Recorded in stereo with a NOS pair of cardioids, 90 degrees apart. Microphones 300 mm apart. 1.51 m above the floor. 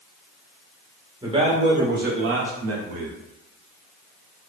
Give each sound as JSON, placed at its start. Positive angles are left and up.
{"t": 1.2, "sound": "a man speaking", "azimuth_deg": -15, "distance_m": 1.1}